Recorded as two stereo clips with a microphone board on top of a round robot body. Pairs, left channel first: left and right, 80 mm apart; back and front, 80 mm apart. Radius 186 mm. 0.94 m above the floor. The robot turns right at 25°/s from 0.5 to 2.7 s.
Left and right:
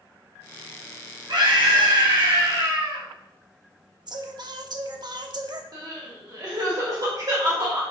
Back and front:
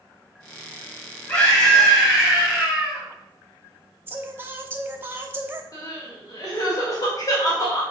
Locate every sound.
1.3 s a scream: 120° right, 4 m; by 3.0 s 85° right, 4 m
4.1 s singing: 65° right, 1.0 m
5.7 s crying: 130° right, 2 m